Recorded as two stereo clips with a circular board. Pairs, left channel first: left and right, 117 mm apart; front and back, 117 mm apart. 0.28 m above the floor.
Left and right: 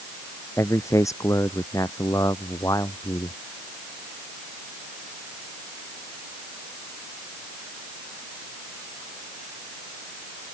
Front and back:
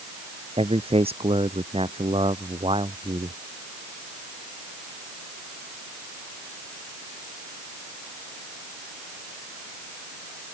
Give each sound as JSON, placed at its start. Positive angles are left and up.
{"t": 0.6, "sound": "a man speaking", "azimuth_deg": 155}